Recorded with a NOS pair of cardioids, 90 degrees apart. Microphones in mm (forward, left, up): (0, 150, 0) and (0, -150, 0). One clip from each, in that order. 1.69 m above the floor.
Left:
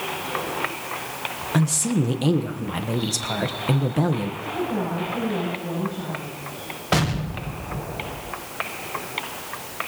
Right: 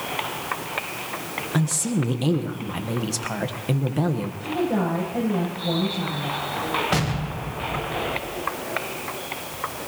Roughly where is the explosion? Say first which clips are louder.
Left 1 dB; ahead.